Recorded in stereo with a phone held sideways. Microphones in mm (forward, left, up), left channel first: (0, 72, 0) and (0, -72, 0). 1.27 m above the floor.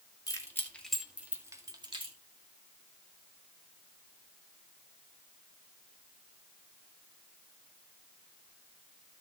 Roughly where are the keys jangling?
Left.